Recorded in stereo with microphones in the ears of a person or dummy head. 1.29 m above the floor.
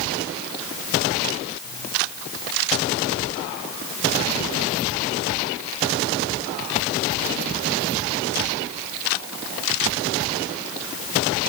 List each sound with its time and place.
Only background noise.